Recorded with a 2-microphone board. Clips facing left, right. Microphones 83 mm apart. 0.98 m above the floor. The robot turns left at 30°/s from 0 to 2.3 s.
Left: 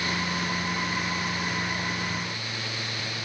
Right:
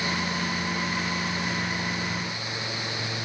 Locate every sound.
Only background noise.